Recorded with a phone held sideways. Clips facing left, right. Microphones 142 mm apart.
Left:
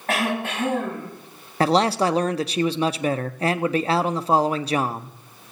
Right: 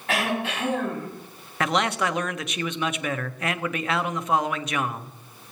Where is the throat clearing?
45° left (ahead or behind), 8.5 m.